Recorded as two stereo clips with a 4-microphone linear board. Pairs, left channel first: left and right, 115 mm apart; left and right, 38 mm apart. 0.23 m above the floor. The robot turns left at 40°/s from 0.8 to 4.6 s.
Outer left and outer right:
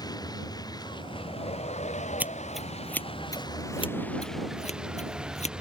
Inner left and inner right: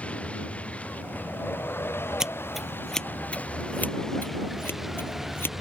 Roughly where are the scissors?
Centre.